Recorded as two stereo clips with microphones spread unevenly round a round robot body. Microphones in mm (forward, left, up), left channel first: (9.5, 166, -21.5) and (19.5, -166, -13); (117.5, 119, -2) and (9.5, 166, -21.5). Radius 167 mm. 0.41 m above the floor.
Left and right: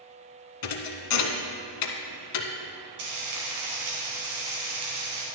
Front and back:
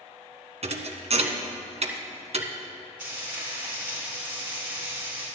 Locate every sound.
0.6 s a thud: 125° left, 1.0 m
3.0 s frying: 120° right, 3 m